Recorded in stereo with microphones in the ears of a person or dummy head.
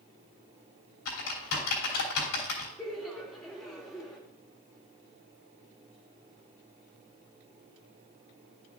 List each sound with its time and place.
1.1 s typing on a keyboard: 70° left (ahead or behind), 3 m
2.8 s laughter: 5° left (ahead or behind), 1.1 m